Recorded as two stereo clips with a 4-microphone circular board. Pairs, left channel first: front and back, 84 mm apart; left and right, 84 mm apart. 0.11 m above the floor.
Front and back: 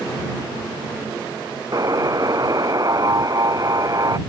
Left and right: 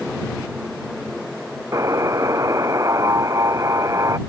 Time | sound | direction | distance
1.7 | a buzzer | 140° right | ?